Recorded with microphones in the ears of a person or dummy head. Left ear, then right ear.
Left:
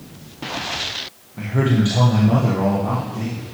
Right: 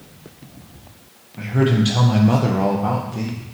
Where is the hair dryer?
No hair dryer in this recording.